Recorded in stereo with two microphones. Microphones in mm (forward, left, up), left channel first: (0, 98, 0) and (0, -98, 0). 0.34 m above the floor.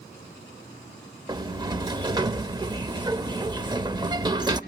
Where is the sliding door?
20° right (ahead or behind), 0.5 m.